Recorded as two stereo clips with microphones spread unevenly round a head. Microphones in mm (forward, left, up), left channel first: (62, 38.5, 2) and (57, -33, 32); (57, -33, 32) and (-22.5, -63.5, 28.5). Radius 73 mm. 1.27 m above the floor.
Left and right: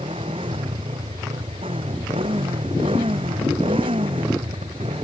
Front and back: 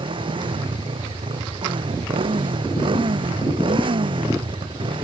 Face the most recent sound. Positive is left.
turn(degrees=-135)